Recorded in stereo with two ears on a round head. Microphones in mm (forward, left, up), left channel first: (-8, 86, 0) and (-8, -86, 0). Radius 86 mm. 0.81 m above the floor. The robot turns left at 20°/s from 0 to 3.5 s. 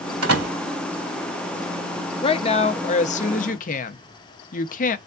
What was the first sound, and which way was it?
A door slam, 80° right.